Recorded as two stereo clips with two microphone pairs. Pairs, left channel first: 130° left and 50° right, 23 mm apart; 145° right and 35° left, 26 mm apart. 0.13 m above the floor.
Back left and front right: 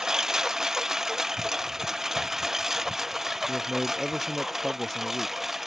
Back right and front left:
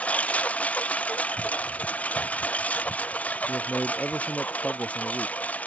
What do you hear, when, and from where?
0.0 s a lawn mower: 125° right; by 5.7 s 135° right
3.5 s a man speaking: 160° right